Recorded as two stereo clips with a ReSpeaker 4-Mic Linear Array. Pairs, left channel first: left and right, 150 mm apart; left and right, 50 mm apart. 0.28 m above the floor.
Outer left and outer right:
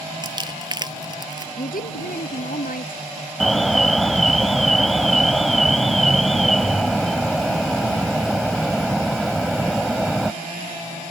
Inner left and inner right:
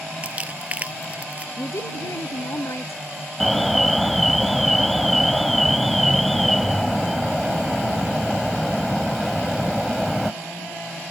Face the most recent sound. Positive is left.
turn(degrees=0)  # may be behind; listen again after turning